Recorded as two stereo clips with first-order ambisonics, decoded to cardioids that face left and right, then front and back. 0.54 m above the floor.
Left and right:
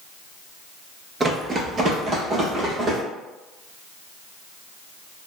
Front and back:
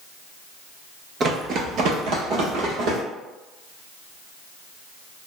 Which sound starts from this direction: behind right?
Running footsteps, at 1.2 s.